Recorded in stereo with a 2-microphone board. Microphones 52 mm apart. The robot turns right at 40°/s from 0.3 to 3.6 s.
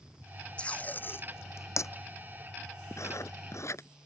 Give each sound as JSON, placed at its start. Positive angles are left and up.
{"t": 0.6, "sound": "tape being pulled", "side_deg": 20}
{"t": 2.9, "sound": "writing", "side_deg": 70}